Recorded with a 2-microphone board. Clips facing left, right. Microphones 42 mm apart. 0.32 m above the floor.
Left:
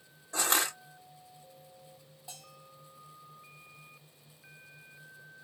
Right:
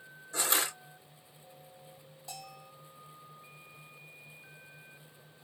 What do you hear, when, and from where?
0.3 s crushing: 50° left (ahead or behind), 1.7 m
2.3 s a bell: 20° left (ahead or behind), 1.5 m